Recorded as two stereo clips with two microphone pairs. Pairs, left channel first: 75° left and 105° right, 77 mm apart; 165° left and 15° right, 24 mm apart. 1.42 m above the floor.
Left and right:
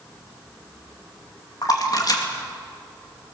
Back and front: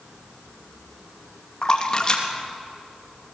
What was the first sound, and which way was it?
A splash, 110° left.